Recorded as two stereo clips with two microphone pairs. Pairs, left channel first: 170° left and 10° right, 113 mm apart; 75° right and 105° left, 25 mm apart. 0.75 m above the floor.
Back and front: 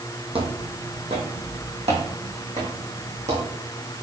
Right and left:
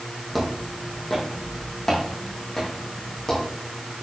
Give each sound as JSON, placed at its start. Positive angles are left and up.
{"t": 0.3, "sound": "footsteps", "azimuth_deg": 20, "distance_m": 2.0}